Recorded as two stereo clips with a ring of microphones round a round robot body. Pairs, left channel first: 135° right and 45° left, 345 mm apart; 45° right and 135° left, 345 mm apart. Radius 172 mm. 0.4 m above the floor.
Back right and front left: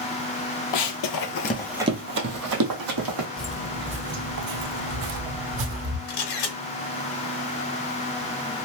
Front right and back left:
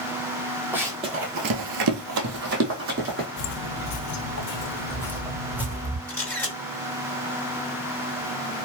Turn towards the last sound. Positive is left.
turn(degrees=-130)